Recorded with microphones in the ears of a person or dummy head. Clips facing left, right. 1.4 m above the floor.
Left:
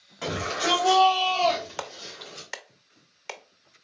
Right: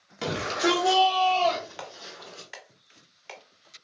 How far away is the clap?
About 0.5 m.